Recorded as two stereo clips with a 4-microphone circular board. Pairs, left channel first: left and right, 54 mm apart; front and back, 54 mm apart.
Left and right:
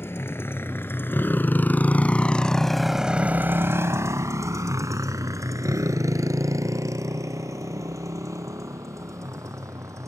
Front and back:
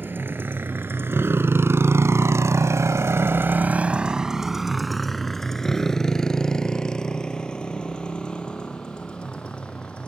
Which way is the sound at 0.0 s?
135° left.